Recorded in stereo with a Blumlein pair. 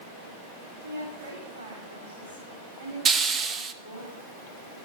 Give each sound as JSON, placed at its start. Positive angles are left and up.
{"t": 0.8, "sound": "a woman speaking", "azimuth_deg": -60, "distance_m": 4.0}
{"t": 3.0, "sound": "a hiss", "azimuth_deg": -20, "distance_m": 0.8}